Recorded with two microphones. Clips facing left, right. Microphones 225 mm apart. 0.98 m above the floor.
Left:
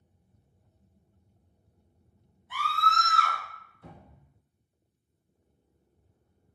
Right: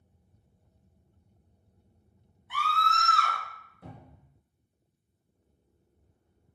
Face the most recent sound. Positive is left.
turn(degrees=-60)  # may be behind; listen again after turning